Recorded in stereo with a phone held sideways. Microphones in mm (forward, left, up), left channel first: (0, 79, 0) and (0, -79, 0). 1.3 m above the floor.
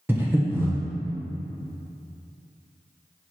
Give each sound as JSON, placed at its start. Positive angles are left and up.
{"t": 0.1, "sound": "breathing", "side_deg": -10, "distance_m": 1.1}